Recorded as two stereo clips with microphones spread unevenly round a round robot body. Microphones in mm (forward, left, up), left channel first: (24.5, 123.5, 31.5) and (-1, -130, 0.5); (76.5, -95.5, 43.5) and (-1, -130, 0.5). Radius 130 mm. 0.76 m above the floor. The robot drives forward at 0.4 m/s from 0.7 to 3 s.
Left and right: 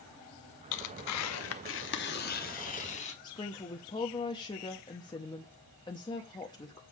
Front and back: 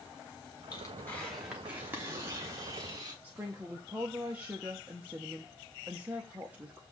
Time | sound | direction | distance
0.7 | tearing paper | 95° left | 0.6 m
3.2 | a woman speaking | 160° left | 0.6 m